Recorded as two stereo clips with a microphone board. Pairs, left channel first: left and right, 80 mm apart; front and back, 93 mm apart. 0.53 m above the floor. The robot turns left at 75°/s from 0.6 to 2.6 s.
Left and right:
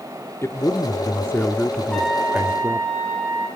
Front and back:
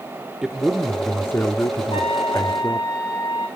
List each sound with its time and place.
0.4 s a man speaking: 100° left, 1.0 m; by 2.9 s 50° right, 1.0 m
1.9 s a trumpet: 15° left, 3 m; by 3.5 s 35° right, 3 m